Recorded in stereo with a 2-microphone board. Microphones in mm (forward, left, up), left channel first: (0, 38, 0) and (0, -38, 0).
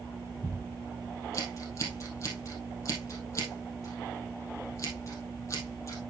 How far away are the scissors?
About 3 m.